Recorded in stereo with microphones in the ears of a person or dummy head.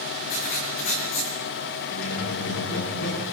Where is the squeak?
85° left, 9 m.